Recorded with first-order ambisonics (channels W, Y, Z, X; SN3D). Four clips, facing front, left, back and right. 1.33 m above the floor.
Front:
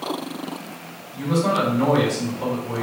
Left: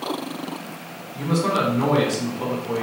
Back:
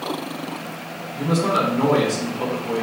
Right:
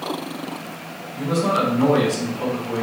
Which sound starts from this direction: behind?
A man speaking, at 1.1 s.